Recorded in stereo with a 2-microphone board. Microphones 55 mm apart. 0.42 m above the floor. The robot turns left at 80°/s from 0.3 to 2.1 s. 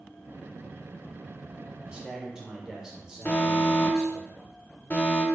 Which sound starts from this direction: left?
An alarm, at 3.2 s.